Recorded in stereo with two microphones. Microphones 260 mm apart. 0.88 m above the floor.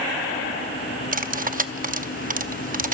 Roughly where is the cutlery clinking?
Right.